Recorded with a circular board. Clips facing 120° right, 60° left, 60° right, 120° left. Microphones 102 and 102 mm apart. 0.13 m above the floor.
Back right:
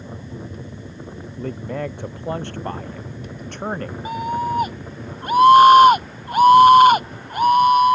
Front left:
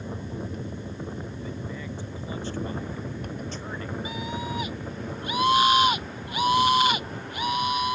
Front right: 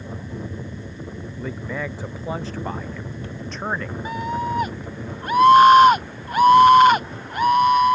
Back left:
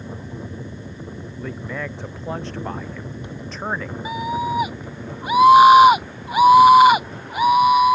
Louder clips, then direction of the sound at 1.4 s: Back right 8 dB, front right 1 dB; 145° right.